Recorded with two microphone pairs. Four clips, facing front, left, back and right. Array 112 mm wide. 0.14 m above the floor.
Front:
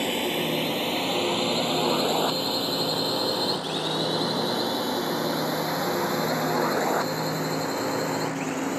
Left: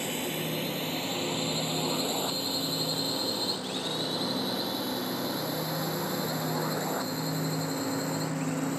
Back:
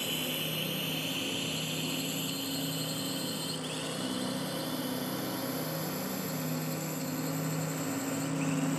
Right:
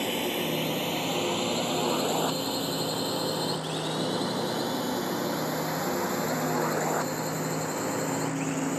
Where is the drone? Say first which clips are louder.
Right 4 dB, front 11 dB; 20° right; by 8.8 s 15° right.